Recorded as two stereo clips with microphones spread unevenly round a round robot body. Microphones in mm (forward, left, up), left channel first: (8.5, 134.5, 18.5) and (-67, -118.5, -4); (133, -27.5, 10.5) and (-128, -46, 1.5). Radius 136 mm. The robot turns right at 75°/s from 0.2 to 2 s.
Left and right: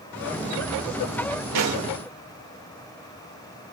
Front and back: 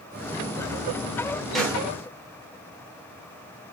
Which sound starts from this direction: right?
A snare drum, at 1.6 s.